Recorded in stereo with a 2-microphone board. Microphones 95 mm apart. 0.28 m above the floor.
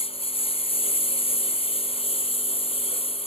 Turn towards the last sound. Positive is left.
turn(degrees=85)